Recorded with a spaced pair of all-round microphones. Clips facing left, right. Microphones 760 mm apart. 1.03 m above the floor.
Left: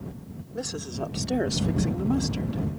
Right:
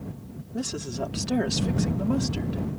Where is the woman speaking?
60° right (ahead or behind); by 2.6 s 10° left (ahead or behind).